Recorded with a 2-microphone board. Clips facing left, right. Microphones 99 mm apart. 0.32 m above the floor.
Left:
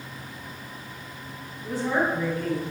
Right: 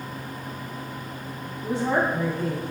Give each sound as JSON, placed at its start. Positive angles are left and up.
{"t": 1.6, "sound": "a woman speaking", "side_deg": -30, "distance_m": 2.0}